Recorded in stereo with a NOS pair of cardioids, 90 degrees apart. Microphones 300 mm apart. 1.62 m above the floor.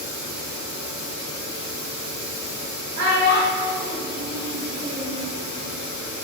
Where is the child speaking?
60° right, 1.7 m.